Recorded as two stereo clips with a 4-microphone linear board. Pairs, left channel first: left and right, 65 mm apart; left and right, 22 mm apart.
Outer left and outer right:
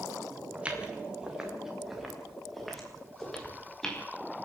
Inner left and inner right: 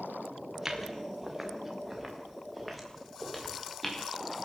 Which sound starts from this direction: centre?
Footsteps, at 0.6 s.